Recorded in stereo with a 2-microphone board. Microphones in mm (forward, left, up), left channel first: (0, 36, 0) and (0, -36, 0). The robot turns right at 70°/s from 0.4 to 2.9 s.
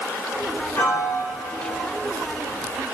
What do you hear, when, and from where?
0.8 s a piano: 150° left, 2.5 m; by 1.9 s 135° right, 2.5 m